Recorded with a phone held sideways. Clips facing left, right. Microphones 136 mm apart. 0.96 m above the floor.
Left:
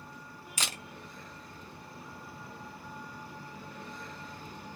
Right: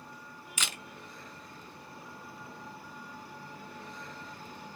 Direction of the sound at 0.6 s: 40° left (ahead or behind).